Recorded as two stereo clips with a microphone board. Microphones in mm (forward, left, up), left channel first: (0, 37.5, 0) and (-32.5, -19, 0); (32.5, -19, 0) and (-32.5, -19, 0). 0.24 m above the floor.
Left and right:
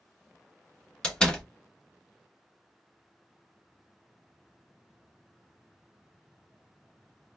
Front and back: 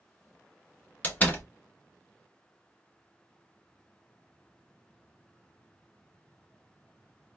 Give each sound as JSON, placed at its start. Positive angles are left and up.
{"t": 1.0, "sound": "a door slam", "azimuth_deg": 5, "distance_m": 0.8}